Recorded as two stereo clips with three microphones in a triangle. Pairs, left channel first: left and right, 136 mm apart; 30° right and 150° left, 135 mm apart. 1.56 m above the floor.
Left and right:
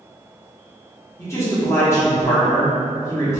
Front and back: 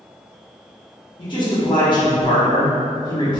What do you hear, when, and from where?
1.2 s a man speaking: 20° left, 1.1 m